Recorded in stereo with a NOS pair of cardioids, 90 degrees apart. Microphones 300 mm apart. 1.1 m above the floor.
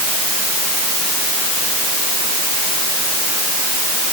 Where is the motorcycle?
I don't hear a motorcycle.